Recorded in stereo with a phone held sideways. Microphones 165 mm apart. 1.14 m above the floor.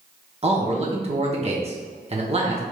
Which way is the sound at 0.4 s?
40° right (ahead or behind).